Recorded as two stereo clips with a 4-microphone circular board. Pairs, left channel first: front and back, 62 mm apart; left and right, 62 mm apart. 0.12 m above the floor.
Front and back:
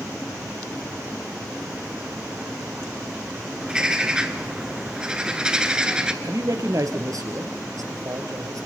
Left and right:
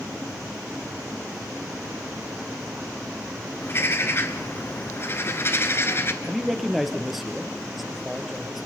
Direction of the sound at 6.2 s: Straight behind.